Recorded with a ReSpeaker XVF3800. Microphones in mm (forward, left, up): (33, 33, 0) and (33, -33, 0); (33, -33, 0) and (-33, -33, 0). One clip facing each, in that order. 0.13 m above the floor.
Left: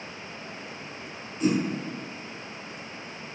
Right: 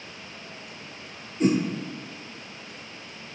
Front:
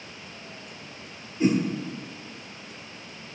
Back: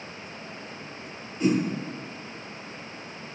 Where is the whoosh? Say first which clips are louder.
Right 3 dB, front 1 dB; 60° right, 3 m.